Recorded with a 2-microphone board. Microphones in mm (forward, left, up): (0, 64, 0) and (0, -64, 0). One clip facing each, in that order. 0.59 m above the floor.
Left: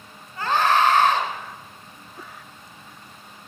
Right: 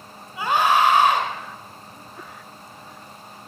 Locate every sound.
0.4 s a scream: 10° right (ahead or behind), 3 m